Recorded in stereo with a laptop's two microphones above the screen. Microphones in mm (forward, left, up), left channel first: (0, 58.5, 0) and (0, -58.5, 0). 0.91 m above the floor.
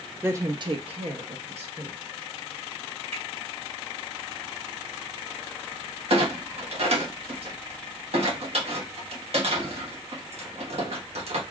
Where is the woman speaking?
20° right (ahead or behind), 0.8 m; by 2.0 s 60° right (ahead or behind), 1.4 m.